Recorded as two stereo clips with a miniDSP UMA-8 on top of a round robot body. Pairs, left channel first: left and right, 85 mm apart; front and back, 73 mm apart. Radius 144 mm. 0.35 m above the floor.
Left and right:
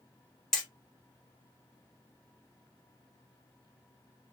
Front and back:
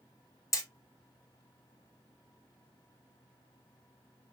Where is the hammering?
10° left, 1.2 m.